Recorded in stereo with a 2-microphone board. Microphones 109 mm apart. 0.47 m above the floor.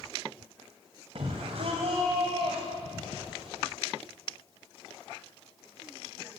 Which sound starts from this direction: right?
A shout, at 1.1 s.